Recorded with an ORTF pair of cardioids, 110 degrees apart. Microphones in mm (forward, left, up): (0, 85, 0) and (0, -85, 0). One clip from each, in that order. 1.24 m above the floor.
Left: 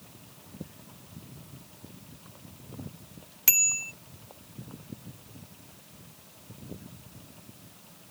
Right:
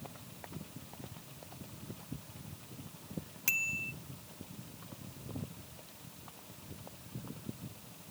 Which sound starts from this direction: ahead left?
A bicycle bell, at 3.5 s.